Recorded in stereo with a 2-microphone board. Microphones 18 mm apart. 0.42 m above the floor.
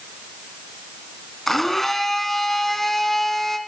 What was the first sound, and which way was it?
A blender, 20° left (ahead or behind).